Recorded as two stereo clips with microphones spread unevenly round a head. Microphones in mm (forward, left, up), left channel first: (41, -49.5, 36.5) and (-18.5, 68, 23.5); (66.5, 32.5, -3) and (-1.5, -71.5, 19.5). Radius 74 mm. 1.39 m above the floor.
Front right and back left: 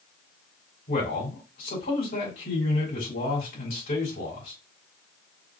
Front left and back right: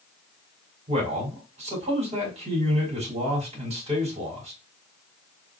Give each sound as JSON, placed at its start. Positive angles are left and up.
{"t": 0.9, "sound": "a man speaking", "azimuth_deg": -90, "distance_m": 3.5}